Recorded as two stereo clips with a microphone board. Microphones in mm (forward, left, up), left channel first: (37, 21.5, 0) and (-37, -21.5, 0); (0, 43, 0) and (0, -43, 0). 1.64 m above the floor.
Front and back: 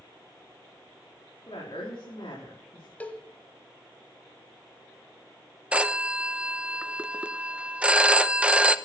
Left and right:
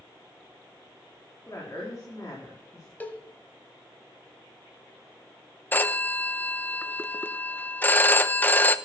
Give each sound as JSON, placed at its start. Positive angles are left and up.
{"t": 1.5, "sound": "a woman speaking", "azimuth_deg": 40, "distance_m": 4.5}
{"t": 3.0, "sound": "a cowbell", "azimuth_deg": 70, "distance_m": 1.5}
{"t": 5.7, "sound": "a phone ringing", "azimuth_deg": 145, "distance_m": 0.8}